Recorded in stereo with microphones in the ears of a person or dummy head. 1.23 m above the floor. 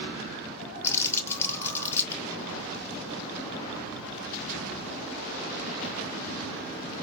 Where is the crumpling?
10° left (ahead or behind), 0.9 m.